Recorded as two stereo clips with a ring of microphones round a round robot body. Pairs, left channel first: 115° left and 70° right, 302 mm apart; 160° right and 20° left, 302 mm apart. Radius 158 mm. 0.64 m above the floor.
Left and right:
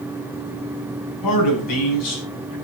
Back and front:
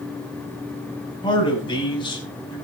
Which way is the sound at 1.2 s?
130° left.